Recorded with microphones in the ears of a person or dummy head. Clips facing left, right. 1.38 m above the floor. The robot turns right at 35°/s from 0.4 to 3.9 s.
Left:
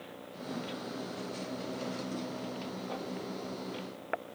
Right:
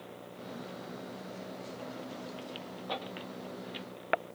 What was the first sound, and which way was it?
Only background noise.